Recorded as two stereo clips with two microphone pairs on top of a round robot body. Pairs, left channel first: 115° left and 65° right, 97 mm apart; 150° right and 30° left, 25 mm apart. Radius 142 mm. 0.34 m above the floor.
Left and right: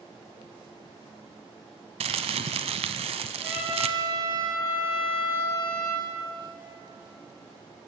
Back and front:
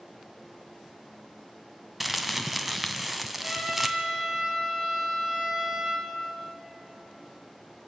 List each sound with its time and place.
2.0 s crumpling: 55° right, 1.1 m
3.4 s a trumpet: straight ahead, 9 m